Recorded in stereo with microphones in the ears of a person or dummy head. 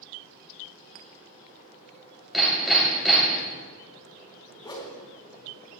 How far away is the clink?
About 0.9 m.